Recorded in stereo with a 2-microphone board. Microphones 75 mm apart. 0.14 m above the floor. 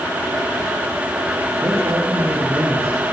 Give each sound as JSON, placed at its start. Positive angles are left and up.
{"t": 1.6, "sound": "a man speaking", "side_deg": -40, "distance_m": 8.0}